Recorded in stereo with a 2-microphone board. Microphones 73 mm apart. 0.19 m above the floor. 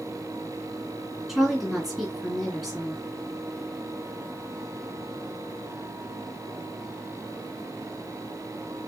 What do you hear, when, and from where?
1.3 s a woman speaking: centre (ahead or behind), 2 m